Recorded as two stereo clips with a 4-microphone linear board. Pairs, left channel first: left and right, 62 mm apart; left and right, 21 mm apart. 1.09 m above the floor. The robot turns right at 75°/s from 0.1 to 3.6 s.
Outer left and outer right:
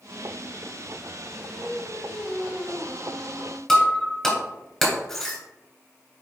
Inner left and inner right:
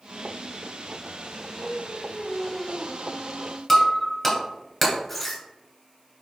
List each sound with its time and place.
1.4 s singing: 60° left, 0.9 m; by 3.6 s 135° right, 0.9 m
3.7 s breaking glass: 5° left (ahead or behind), 2.5 m